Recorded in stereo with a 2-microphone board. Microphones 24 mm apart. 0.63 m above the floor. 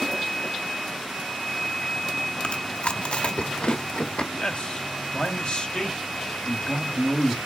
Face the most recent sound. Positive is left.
turn(degrees=45)  # may be behind; listen again after turning